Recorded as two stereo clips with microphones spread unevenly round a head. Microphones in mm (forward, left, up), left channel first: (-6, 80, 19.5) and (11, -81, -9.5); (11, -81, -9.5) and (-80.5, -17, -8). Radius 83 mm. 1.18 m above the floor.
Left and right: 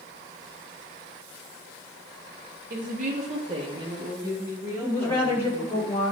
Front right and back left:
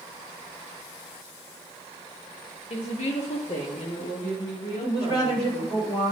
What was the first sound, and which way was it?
A woman speaking, 55° right.